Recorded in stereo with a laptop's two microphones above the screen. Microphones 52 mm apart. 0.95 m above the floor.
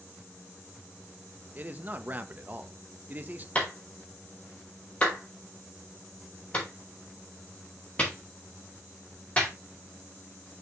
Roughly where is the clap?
Left.